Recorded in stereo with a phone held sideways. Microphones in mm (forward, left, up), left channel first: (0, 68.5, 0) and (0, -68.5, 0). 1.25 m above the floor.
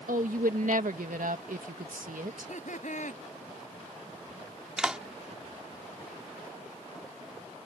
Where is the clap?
5° right (ahead or behind).